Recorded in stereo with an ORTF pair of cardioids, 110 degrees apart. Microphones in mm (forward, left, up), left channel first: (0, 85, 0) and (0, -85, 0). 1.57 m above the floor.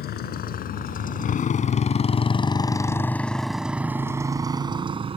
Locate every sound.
0.0 s a motorcycle: 65° left; by 5.2 s 35° right